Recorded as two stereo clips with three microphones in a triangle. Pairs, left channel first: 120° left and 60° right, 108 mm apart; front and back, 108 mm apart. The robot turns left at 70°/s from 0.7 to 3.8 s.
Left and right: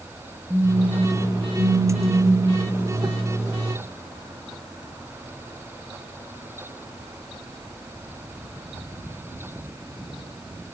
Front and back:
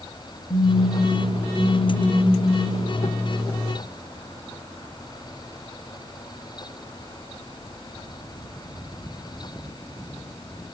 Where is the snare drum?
No snare drum in this recording.